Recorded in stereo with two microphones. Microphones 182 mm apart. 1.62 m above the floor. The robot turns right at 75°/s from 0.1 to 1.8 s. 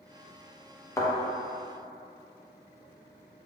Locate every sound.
1.0 s a thud: 15° left (ahead or behind), 0.9 m; by 1.1 s 20° left (ahead or behind), 0.9 m